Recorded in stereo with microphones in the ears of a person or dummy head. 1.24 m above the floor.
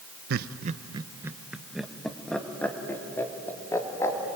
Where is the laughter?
55° right (ahead or behind), 0.7 m; by 4.2 s 15° left (ahead or behind), 3.5 m.